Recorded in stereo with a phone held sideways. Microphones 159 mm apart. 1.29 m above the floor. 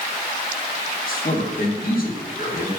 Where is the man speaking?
65° left (ahead or behind), 3 m.